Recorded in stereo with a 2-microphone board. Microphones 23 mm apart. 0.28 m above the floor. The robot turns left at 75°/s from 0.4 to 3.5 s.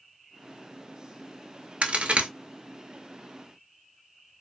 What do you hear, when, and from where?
1.8 s a crack: 75° right (ahead or behind), 0.7 m; by 2.3 s 70° right (ahead or behind), 0.7 m